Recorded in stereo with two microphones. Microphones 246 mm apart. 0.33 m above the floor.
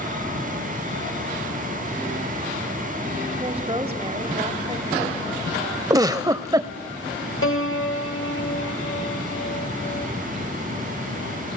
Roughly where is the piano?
Left.